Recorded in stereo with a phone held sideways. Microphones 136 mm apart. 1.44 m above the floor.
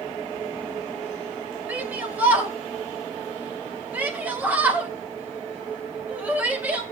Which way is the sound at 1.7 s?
10° right (ahead or behind).